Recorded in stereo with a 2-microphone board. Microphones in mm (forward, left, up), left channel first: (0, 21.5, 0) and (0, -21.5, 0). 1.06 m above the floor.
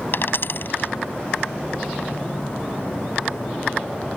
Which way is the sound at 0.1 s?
55° left (ahead or behind).